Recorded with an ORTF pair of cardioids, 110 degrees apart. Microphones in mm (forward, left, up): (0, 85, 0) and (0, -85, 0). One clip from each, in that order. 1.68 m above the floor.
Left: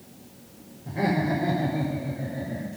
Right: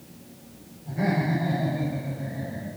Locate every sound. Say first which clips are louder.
0.8 s laughter: left 1 dB; 45° left, 4.5 m; by 2.7 s 35° left, 3.5 m